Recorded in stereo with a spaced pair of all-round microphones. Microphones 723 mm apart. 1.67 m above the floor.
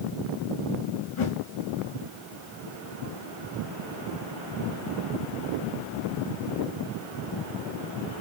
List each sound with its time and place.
1.2 s a whoosh: 45° left (ahead or behind), 0.7 m